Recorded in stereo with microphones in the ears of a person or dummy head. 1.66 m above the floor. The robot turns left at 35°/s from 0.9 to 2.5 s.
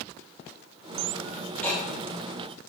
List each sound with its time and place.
1.6 s ticking: 10° left (ahead or behind), 4 m; by 1.8 s 20° left (ahead or behind), 4 m